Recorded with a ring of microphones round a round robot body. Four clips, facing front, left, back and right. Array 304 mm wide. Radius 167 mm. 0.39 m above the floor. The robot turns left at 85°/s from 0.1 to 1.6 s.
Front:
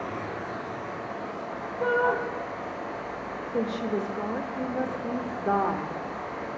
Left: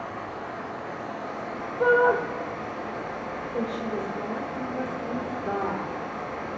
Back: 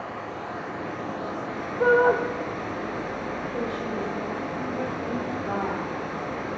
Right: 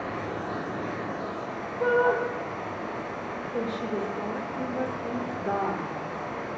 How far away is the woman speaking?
About 1.2 m.